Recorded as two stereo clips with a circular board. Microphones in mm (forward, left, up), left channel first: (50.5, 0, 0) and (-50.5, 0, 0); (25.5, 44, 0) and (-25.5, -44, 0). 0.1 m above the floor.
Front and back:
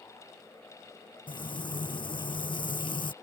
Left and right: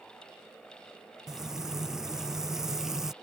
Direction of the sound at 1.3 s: 35° right.